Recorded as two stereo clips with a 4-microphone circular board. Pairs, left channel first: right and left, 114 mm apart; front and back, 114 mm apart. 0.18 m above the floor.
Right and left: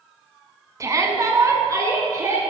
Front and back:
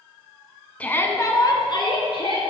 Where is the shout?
65° left, 1.3 m; by 2.4 s 30° left, 3 m.